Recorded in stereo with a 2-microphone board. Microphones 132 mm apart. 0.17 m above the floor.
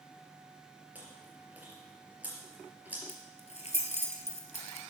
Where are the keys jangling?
55° left (ahead or behind), 1.9 m.